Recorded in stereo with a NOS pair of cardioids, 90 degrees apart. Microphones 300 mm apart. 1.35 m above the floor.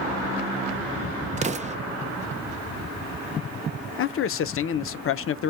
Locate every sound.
1.4 s an explosion: 25° right, 0.7 m
4.0 s a man speaking: 50° left, 0.6 m